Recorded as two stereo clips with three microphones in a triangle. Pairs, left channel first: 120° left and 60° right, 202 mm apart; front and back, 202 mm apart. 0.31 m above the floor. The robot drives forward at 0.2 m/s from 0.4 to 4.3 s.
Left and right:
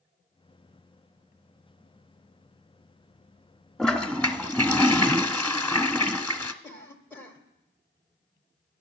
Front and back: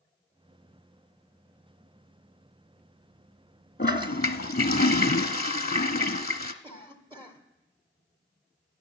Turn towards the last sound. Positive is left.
turn(degrees=-175)